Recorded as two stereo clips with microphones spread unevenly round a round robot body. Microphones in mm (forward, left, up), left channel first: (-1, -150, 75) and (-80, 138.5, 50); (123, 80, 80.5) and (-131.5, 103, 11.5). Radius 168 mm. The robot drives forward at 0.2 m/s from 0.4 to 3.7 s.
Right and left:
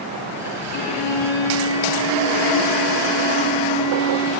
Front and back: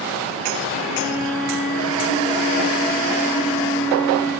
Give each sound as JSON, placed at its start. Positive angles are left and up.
{"t": 0.7, "sound": "a violin", "azimuth_deg": -140, "distance_m": 5.5}